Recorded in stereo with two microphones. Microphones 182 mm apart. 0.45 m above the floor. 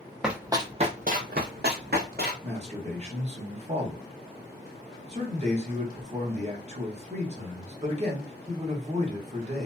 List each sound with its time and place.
0.2 s running footsteps: 5° right (ahead or behind), 0.6 m; by 2.3 s 60° right (ahead or behind), 1.3 m
2.4 s a man speaking: 40° right (ahead or behind), 1.0 m